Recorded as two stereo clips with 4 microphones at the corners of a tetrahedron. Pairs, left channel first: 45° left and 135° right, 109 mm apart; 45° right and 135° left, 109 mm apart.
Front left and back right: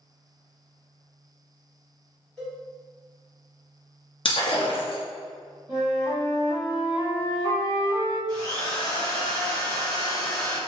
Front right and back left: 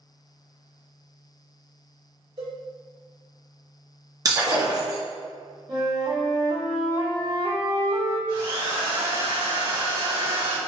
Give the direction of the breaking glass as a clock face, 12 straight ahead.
9 o'clock.